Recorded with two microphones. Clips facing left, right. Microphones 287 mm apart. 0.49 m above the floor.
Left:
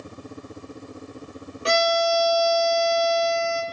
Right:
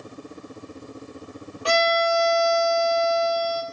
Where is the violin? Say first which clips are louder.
Even; 25° left (ahead or behind), 1.0 m.